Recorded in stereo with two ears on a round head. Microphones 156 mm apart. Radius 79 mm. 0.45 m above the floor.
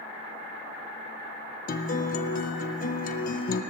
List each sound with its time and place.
1.7 s a guitar: 50° left (ahead or behind), 0.7 m